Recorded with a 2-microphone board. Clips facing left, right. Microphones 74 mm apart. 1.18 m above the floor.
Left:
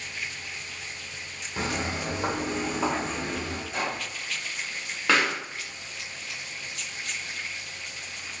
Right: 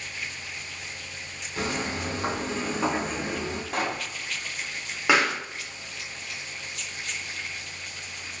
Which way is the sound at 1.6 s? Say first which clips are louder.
Even; 25° left (ahead or behind).